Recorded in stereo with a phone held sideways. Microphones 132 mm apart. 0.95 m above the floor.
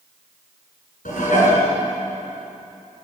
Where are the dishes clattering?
80° left, 7.5 m.